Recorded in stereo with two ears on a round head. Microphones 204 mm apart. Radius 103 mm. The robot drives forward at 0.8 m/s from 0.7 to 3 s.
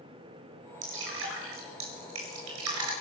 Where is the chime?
I don't hear a chime.